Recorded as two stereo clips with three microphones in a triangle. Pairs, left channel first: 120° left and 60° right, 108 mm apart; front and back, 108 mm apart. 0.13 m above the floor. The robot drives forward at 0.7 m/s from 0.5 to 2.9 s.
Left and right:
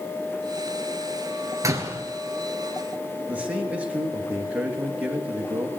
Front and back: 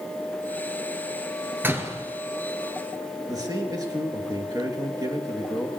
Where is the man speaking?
135° right, 2.5 m.